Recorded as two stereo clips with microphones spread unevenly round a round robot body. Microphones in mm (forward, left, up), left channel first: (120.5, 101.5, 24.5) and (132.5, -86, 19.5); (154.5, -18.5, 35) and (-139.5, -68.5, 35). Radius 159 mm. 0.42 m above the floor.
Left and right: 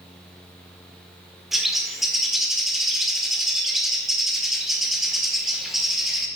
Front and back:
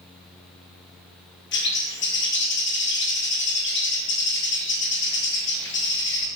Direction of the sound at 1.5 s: Straight ahead.